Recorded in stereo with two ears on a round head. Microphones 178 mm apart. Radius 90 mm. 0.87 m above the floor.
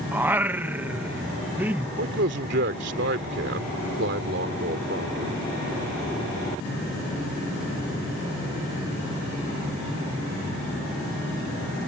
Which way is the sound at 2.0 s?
55° right (ahead or behind).